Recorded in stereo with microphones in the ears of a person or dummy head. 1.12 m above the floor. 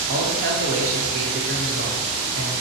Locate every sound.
0.1 s a man speaking: 50° right (ahead or behind), 1.0 m